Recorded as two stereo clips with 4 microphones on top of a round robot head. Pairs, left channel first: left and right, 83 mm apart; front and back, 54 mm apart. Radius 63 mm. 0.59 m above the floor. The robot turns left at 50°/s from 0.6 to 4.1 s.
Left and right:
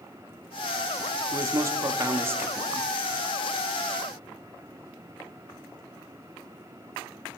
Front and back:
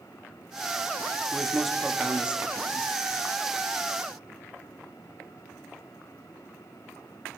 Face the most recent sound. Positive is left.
turn(degrees=145)